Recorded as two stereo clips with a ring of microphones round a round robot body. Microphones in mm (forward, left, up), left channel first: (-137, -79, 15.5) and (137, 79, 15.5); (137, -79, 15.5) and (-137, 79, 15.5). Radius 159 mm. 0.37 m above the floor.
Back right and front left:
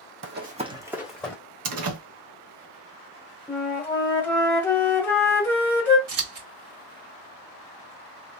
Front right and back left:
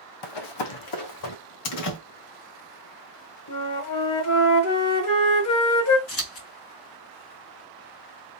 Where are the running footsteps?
25° right, 1.1 m; by 1.4 s 65° right, 1.7 m.